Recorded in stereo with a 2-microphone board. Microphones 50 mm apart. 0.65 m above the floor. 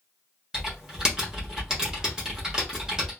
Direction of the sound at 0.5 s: 15° right (ahead or behind).